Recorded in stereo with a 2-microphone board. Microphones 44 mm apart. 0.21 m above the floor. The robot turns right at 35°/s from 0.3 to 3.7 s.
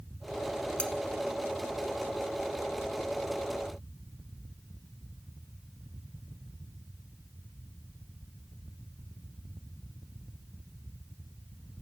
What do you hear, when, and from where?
0.8 s cutlery clinking: 25° left (ahead or behind), 1.0 m